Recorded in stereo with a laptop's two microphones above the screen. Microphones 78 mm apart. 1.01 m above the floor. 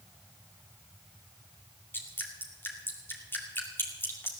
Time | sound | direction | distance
1.9 | dripping | 30° left (ahead or behind) | 2 m